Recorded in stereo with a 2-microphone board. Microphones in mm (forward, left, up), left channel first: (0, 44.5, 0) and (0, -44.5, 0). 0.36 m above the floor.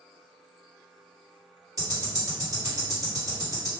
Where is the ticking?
45° right (ahead or behind), 1.8 m.